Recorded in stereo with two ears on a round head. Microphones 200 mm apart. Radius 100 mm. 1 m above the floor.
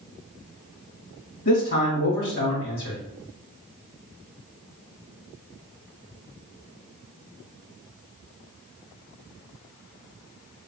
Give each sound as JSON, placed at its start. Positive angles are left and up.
{"t": 1.4, "sound": "a man speaking", "side_deg": 50, "distance_m": 1.6}